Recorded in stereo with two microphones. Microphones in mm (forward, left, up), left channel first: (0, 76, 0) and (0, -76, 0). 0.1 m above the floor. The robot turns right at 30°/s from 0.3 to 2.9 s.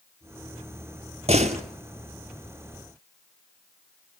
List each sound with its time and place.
1.3 s a door slam: 45° right (ahead or behind), 1.7 m; by 1.6 s 50° right (ahead or behind), 1.7 m